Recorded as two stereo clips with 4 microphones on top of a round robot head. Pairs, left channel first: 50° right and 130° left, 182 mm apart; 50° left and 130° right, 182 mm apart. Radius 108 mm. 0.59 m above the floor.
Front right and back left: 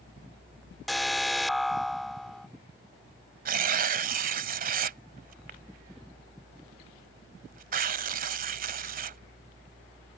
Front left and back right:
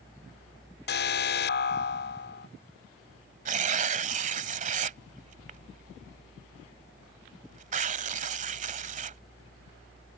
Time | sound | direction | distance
0.9 | an alarm | 40° left | ?
3.5 | tearing paper | 175° left | ?